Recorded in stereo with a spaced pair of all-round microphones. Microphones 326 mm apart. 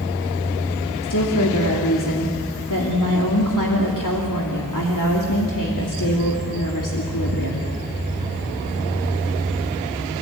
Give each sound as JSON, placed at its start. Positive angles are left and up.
{"t": 1.0, "sound": "a woman speaking", "side_deg": 70, "distance_m": 2.5}